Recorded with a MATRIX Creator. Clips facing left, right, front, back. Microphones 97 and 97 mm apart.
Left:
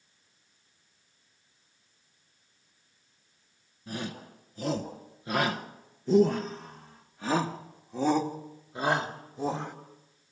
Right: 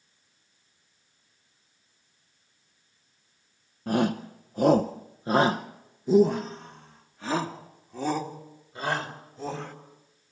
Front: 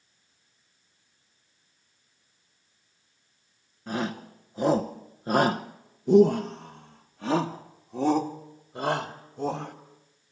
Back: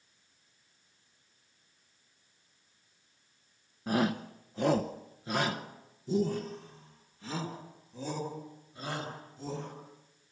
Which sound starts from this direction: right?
A shout, at 3.9 s.